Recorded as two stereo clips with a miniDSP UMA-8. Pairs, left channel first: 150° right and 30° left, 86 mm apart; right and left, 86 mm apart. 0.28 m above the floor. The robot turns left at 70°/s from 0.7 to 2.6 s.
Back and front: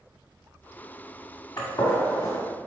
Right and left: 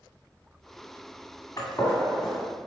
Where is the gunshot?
130° right, 2 m; by 2.4 s 170° left, 2 m.